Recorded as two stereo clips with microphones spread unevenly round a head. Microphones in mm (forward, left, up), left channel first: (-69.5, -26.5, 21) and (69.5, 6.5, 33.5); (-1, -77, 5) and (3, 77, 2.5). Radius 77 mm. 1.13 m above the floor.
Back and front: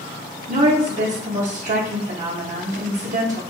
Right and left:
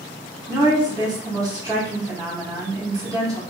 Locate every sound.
0.5 s a woman speaking: 25° left, 0.9 m